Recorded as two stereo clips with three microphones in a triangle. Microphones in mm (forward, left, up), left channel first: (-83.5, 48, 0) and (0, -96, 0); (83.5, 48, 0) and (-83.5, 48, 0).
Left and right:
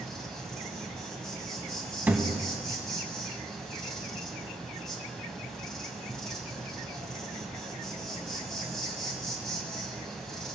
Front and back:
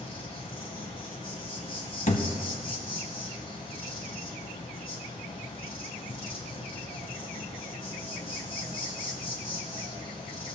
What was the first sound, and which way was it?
An insect, 35° left.